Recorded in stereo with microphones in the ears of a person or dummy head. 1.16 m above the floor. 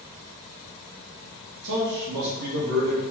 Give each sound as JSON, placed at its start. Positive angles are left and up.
{"t": 1.6, "sound": "a man speaking", "side_deg": -65, "distance_m": 1.2}